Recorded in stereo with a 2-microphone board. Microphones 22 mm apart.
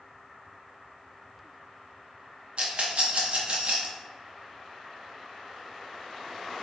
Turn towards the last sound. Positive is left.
turn(degrees=-55)  # may be behind; listen again after turning